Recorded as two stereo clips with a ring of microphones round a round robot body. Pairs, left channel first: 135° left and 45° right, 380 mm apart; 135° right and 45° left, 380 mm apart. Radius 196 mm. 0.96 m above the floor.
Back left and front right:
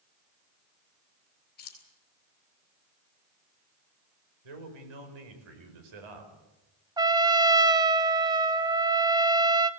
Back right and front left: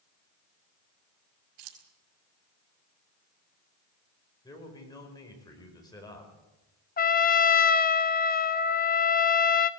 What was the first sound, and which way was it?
Keys jangling, 70° left.